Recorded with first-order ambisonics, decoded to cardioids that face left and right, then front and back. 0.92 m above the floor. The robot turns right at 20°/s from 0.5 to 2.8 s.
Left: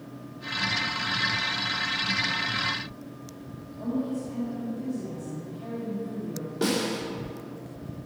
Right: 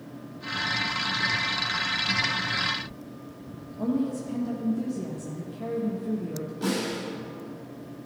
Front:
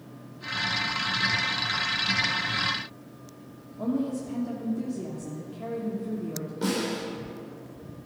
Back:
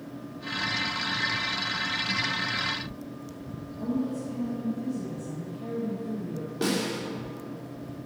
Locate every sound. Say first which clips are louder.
3.8 s a woman speaking: right 2 dB, front 2 dB; 70° right, 1.2 m
6.6 s a snare drum: left 3 dB, back 1 dB; 150° left, 3 m